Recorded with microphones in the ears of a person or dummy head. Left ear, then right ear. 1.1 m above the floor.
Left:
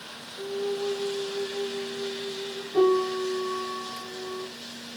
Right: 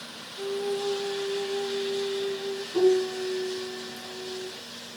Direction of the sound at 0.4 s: 10° right (ahead or behind).